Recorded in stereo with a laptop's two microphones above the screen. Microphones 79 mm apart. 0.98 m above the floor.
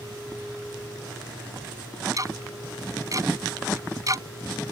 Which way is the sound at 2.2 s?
45° right (ahead or behind).